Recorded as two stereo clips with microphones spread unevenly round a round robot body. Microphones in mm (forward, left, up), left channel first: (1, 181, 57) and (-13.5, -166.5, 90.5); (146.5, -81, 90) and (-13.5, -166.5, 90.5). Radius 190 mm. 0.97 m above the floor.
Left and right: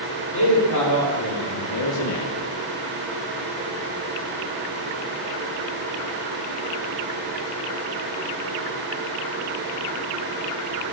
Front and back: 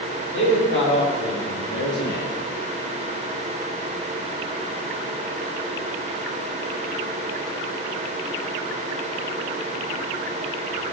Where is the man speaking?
45° left, 4 m; by 2.3 s 65° left, 1.2 m.